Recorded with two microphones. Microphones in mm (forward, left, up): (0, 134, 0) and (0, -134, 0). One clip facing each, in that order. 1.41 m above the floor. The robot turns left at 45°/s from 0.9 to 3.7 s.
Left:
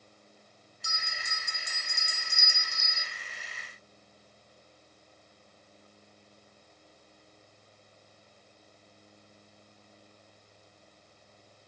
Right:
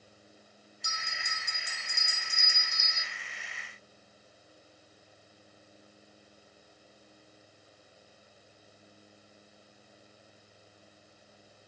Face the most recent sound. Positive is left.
turn(degrees=-125)